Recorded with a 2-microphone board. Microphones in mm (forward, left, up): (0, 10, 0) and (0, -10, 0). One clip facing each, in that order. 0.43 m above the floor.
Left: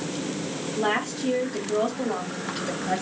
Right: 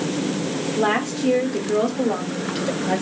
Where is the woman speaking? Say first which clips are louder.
Right 4 dB; 20° right (ahead or behind), 0.9 m; by 3.0 s 30° right (ahead or behind), 1.4 m.